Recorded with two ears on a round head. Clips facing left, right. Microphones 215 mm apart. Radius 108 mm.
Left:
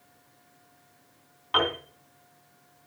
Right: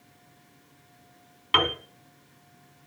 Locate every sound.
1.5 s a piano: 40° right (ahead or behind), 3 m